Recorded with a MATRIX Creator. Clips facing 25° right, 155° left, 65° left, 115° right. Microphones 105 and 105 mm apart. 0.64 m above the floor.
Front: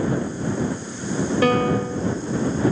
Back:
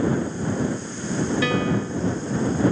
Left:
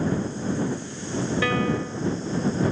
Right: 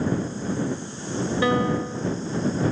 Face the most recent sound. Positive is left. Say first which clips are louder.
# front 4 dB, right 5 dB
turn(degrees=-50)